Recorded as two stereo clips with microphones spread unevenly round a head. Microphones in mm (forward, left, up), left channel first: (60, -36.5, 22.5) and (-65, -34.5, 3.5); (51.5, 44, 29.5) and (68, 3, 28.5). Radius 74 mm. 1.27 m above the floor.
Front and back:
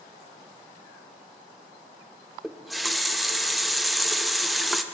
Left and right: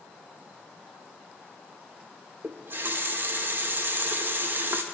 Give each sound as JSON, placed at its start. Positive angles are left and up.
{"t": 2.4, "sound": "a running tap", "azimuth_deg": -80, "distance_m": 0.6}